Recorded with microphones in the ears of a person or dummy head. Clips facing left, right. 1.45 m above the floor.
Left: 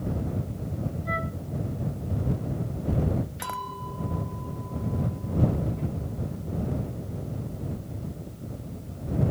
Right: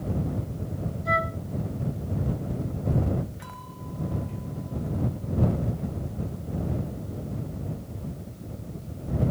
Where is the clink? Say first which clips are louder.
Left 5 dB; 85° left.